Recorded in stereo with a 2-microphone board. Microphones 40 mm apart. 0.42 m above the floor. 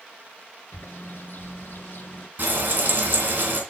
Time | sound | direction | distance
0.7 | a bird | 55° left (ahead or behind) | 1.4 m
2.4 | frying | 50° right (ahead or behind) | 2.5 m